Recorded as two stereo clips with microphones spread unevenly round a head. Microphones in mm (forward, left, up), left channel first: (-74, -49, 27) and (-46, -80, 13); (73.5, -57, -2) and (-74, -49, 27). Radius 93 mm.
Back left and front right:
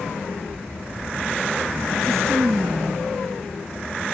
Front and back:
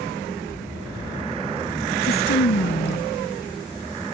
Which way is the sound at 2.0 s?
15° right.